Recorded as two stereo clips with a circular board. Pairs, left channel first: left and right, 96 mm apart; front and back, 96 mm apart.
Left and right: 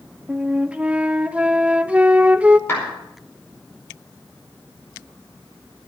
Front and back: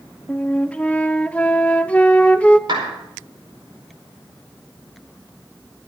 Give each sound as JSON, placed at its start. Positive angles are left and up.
{"t": 0.3, "sound": "a flute", "azimuth_deg": -45, "distance_m": 0.6}
{"t": 2.7, "sound": "a clap", "azimuth_deg": 155, "distance_m": 5.0}